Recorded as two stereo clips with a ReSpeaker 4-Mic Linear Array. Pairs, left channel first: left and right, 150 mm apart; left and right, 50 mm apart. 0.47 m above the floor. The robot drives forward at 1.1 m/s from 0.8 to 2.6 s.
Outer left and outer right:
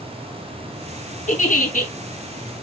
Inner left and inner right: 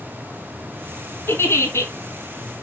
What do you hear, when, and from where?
1.3 s a giggle: 60° left (ahead or behind), 3 m; by 1.9 s 70° left (ahead or behind), 3 m